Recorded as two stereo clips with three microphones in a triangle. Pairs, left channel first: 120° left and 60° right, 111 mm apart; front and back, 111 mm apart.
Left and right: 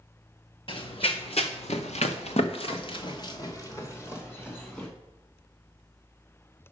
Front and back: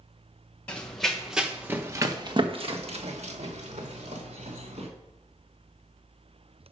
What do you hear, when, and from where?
0.7 s running footsteps: 80° left, 1.7 m; by 4.9 s 165° right, 2.5 m